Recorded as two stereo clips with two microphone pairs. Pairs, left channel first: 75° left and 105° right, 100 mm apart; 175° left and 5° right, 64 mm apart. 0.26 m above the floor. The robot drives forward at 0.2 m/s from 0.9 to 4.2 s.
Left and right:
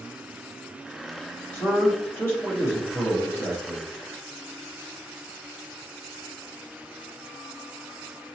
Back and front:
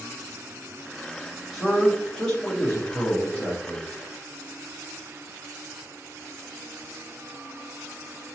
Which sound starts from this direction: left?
A man speaking, at 1.5 s.